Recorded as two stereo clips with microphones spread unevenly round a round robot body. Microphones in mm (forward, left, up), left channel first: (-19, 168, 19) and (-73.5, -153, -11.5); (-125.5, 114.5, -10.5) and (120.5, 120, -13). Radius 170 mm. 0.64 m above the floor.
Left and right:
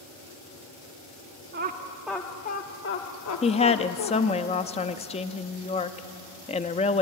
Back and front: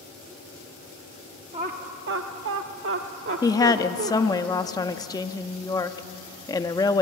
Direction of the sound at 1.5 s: 60° right.